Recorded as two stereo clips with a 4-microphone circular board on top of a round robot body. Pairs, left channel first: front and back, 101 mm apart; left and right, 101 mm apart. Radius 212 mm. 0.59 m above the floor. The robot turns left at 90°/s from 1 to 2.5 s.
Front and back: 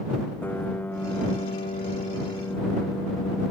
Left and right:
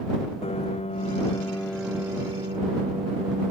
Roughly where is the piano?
Left.